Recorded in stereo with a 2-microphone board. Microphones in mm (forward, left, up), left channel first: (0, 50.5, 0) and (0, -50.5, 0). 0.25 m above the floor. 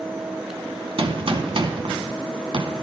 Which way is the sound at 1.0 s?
60° right (ahead or behind).